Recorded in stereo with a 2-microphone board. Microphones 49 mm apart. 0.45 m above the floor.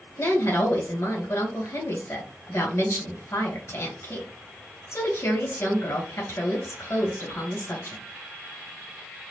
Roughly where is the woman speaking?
Left.